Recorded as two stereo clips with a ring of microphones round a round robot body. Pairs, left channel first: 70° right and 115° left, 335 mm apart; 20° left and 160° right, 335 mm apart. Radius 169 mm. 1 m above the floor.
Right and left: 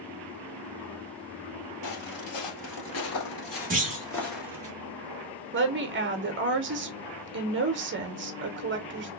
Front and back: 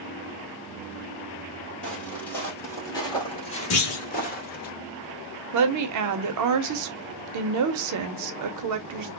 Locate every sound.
1.8 s footsteps: 65° right, 1.8 m; by 4.7 s 45° left, 1.0 m
3.7 s a clunk: 55° left, 0.8 m
5.5 s a woman speaking: 170° left, 0.6 m